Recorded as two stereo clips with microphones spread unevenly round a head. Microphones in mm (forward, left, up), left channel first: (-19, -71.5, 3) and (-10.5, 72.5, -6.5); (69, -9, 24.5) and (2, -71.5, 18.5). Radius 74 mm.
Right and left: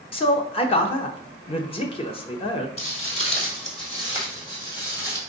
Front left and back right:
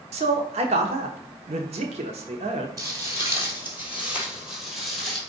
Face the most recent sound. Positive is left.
turn(degrees=-35)